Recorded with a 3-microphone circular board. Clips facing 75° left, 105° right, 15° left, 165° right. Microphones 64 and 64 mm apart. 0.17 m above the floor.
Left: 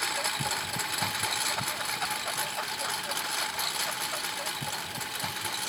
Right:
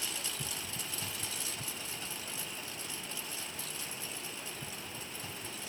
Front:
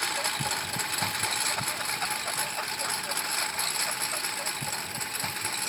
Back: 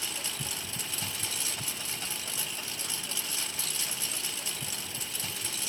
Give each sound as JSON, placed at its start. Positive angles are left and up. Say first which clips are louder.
{"t": 0.0, "sound": "a lawn mower", "louder": "left 11 dB, front 9 dB", "azimuth_deg": 45}